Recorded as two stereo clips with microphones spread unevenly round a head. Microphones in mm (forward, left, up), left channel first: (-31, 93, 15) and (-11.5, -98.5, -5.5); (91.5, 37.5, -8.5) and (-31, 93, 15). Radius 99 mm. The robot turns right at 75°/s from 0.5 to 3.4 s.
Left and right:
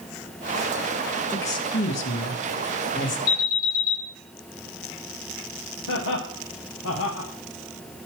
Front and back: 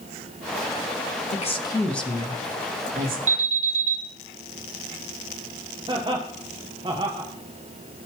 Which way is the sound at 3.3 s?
130° left.